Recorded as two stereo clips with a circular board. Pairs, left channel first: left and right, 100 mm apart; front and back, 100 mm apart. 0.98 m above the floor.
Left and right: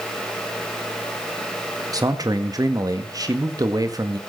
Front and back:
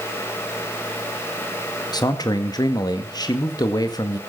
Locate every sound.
1.9 s a man speaking: 40° right, 1.8 m